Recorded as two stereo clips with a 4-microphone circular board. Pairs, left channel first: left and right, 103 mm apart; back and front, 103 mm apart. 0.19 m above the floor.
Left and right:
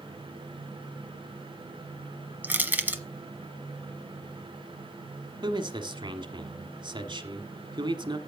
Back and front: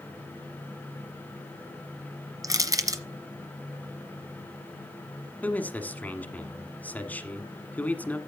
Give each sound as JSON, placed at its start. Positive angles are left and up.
{"t": 2.4, "sound": "crushing", "azimuth_deg": -25, "distance_m": 1.2}
{"t": 5.4, "sound": "a man speaking", "azimuth_deg": -110, "distance_m": 1.5}